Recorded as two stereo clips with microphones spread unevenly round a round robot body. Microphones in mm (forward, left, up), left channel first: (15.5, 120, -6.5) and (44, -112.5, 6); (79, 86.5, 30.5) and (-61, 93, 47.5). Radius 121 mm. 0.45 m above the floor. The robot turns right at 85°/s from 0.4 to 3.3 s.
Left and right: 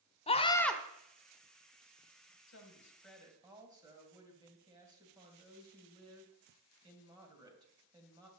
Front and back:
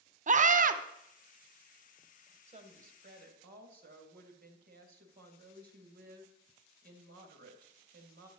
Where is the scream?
155° left, 1.2 m; by 0.8 s 175° right, 1.2 m.